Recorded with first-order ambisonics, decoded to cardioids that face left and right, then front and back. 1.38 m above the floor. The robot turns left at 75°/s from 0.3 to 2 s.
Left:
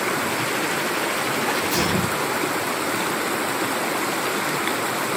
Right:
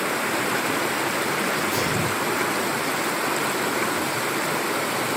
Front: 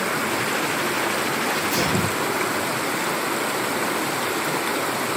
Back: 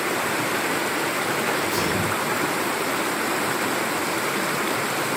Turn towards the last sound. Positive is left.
turn(degrees=35)